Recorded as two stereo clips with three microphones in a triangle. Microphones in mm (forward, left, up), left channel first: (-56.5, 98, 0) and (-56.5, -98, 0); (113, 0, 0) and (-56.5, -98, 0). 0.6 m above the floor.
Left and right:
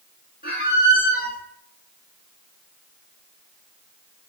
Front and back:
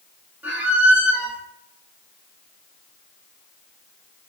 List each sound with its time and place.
0.4 s a squeak: 130° left, 1.0 m